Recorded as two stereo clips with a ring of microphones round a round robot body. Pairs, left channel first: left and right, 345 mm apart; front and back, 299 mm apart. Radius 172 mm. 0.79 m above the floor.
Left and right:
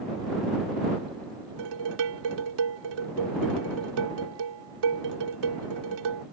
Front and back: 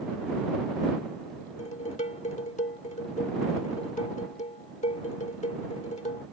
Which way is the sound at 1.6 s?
70° right.